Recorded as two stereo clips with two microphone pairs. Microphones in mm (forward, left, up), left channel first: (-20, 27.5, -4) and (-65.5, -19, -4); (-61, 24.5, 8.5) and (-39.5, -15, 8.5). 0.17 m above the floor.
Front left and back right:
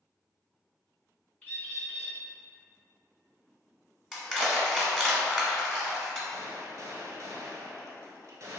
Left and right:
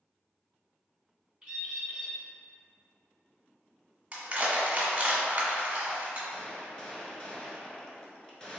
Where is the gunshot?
170° right, 0.8 m.